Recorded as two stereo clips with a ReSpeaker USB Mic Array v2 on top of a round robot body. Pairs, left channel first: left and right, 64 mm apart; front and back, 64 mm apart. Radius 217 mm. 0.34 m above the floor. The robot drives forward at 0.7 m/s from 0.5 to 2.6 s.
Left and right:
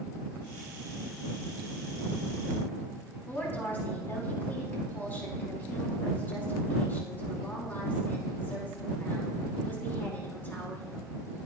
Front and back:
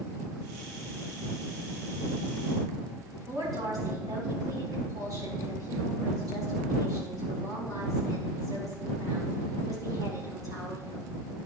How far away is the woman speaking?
About 5 m.